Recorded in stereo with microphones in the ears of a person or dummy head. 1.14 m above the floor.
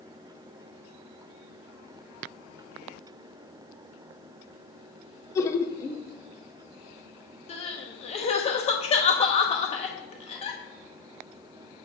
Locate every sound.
5.3 s laughter: 15° left (ahead or behind), 0.7 m
7.5 s crying: 25° left (ahead or behind), 0.8 m